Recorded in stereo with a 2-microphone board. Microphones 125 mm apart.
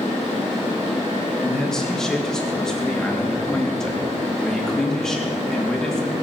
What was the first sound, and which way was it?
A man speaking, 5° left (ahead or behind).